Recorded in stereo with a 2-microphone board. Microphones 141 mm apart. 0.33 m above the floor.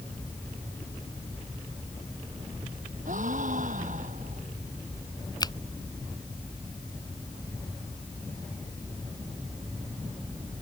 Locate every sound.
3.0 s a gasp: 65° right (ahead or behind)
5.4 s a finger snap: 30° left (ahead or behind)